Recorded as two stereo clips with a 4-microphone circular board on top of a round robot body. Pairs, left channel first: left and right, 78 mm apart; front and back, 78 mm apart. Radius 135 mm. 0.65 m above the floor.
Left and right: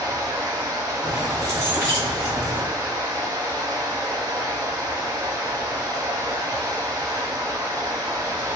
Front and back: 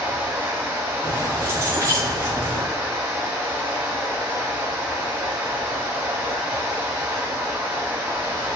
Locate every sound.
0.0 s running water: 125° right, 1.7 m
1.0 s keys jangling: 140° right, 2.5 m